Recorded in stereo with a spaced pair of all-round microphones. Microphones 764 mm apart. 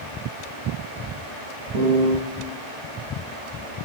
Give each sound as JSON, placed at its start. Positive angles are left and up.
{"t": 1.7, "sound": "a piano", "side_deg": -60, "distance_m": 8.0}